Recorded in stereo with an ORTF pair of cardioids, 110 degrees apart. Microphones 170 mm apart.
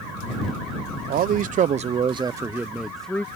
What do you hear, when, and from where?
1.1 s a man speaking: 65° right; by 3.2 s 10° left